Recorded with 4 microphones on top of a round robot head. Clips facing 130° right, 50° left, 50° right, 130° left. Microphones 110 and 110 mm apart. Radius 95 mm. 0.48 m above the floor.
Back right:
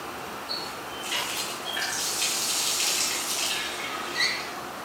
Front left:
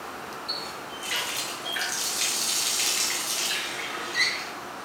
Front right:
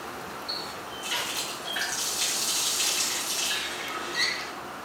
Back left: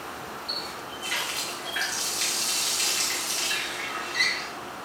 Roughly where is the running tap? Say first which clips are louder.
Back right 1 dB, even; ahead left.